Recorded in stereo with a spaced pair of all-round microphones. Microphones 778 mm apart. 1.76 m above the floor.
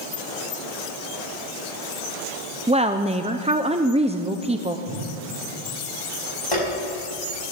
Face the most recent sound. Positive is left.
turn(degrees=40)  # may be behind; listen again after turning